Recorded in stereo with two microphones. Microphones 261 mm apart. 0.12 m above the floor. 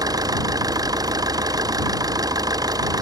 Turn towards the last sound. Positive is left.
turn(degrees=-15)  # may be behind; listen again after turning